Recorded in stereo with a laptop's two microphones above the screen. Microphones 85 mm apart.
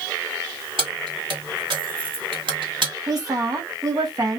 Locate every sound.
0.8 s keys jangling: 80° right, 1.5 m
3.1 s a woman speaking: 45° right (ahead or behind), 1.1 m